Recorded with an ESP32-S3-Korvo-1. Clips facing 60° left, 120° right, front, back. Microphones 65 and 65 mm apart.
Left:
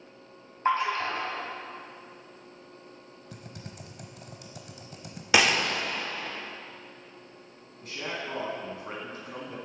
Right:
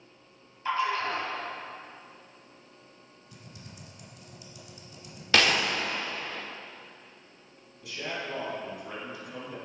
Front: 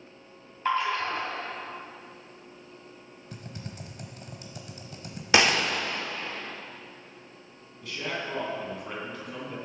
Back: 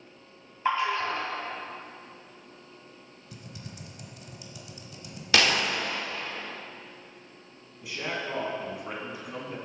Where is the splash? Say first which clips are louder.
Left 2 dB, even; 105° left, 3.5 m.